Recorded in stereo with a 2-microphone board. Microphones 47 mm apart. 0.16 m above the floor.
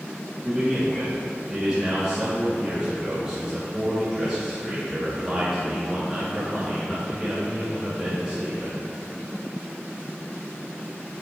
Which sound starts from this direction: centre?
A man speaking, at 0.4 s.